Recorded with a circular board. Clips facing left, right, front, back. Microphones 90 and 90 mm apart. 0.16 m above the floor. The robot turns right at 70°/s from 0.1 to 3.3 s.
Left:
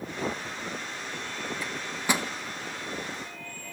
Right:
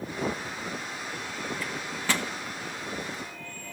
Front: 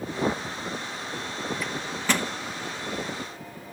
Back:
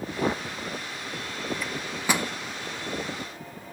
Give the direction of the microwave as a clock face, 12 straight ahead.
9 o'clock.